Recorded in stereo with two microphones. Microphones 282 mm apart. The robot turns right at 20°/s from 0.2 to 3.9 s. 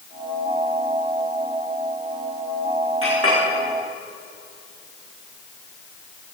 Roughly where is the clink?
Right.